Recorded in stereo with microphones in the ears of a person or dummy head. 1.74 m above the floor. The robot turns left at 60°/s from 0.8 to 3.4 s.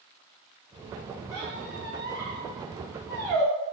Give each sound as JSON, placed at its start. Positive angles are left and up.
{"t": 1.3, "sound": "a squeak", "side_deg": -50, "distance_m": 1.6}